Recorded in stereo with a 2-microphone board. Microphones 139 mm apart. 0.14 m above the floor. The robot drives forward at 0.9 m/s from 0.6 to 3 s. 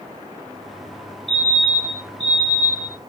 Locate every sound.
1.3 s a fire alarm: 35° right (ahead or behind), 4 m; by 3.0 s 30° right (ahead or behind), 5 m